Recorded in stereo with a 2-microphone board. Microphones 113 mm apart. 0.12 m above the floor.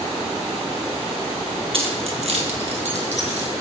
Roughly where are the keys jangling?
Right.